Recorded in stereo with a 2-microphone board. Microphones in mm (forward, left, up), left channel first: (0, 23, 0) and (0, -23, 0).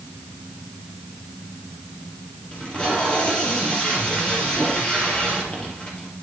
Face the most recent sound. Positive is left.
turn(degrees=20)  # may be behind; listen again after turning